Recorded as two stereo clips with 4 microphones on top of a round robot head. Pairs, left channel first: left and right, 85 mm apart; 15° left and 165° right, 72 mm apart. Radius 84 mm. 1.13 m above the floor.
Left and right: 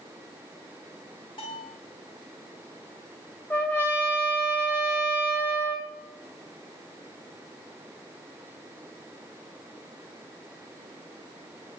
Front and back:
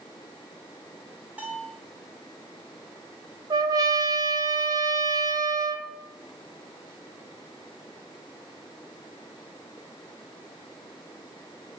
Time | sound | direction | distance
1.4 | a bell | 125° left | 6 m
3.5 | a trumpet | 160° left | 2 m